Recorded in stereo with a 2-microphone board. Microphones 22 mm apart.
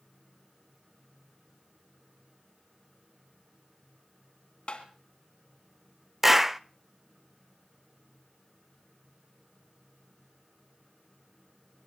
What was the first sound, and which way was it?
Tapping, 55° left (ahead or behind).